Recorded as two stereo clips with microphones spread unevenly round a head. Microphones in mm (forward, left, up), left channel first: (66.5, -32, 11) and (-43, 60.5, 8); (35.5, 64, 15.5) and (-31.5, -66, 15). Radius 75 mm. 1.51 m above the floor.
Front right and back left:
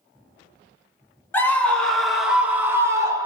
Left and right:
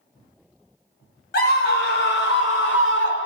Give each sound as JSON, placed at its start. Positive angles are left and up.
{"t": 1.3, "sound": "a scream", "azimuth_deg": 35, "distance_m": 1.8}